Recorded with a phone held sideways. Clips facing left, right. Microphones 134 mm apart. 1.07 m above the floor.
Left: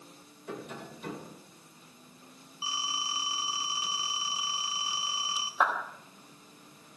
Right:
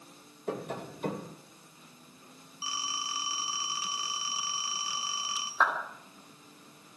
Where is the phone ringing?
20° left (ahead or behind), 2.5 m.